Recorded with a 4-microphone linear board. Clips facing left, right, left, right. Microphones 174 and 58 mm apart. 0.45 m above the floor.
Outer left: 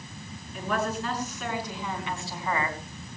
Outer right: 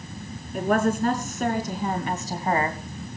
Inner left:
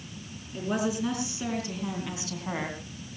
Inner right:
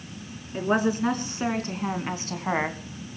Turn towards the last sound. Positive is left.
turn(degrees=-40)  # may be behind; listen again after turning